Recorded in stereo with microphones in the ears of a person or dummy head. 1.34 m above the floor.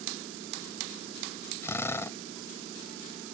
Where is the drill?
15° left (ahead or behind).